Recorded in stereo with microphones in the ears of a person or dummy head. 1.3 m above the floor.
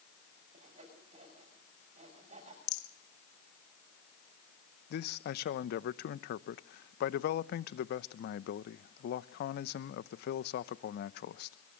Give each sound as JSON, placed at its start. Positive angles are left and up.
{"t": 0.5, "sound": "sawing", "side_deg": -40, "distance_m": 6.0}
{"t": 2.7, "sound": "a rattle", "side_deg": 75, "distance_m": 1.6}
{"t": 4.9, "sound": "a man speaking", "side_deg": 60, "distance_m": 0.7}